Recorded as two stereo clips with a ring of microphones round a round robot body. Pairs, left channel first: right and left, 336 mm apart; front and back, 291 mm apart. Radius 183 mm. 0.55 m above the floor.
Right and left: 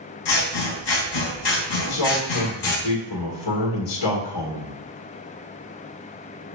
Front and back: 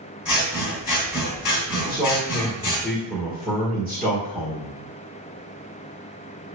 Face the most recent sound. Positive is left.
turn(degrees=-90)